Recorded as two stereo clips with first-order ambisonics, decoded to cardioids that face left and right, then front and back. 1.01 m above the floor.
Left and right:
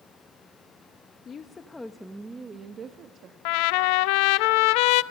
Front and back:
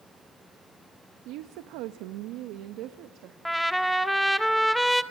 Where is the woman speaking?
155° left, 1.1 m; by 3.4 s 140° right, 1.5 m.